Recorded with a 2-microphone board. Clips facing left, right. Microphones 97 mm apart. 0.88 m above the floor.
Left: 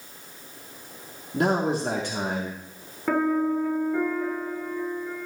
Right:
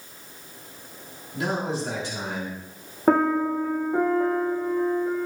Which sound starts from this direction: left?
A man speaking, at 1.3 s.